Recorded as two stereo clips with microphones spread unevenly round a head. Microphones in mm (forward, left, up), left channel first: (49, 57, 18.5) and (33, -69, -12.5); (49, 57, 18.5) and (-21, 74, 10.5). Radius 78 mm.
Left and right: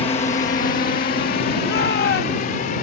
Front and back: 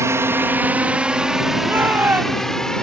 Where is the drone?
135° left; by 2.8 s 70° left.